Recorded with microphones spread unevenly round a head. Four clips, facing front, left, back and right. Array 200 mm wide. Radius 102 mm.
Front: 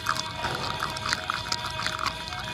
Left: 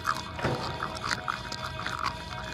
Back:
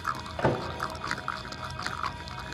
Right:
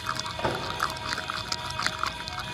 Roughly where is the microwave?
Behind.